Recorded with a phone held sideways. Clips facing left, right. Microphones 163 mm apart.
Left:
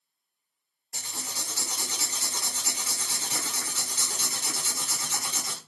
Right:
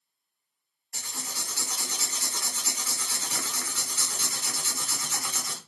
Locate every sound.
0.9 s writing: 25° left (ahead or behind), 0.8 m